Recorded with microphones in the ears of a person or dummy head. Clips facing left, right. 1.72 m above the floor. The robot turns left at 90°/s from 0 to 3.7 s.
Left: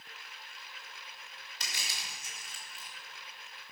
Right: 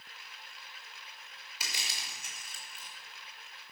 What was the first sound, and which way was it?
Crushing, centre (ahead or behind).